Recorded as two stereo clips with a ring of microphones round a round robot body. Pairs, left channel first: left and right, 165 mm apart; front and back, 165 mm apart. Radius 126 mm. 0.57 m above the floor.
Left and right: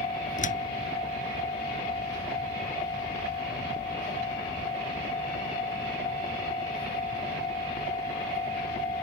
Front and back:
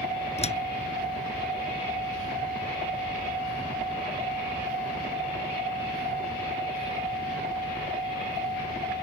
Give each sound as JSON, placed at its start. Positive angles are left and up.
{"t": 0.4, "sound": "a door slam", "azimuth_deg": 50}